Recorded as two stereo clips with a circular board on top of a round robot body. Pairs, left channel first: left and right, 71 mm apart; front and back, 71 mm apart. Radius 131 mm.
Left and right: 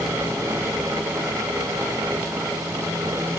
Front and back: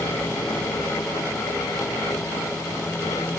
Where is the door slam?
No door slam in this recording.